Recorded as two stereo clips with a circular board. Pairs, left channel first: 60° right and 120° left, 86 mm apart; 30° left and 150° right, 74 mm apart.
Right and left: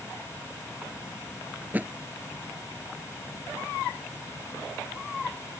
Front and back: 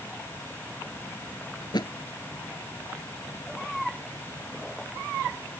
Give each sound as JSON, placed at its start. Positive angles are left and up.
{"t": 1.6, "sound": "a thud", "azimuth_deg": 50}